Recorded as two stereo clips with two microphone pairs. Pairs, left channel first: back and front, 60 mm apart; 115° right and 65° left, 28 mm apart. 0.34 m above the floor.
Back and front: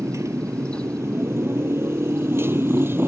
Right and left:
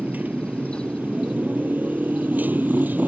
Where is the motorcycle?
40° left; by 3.1 s 55° left.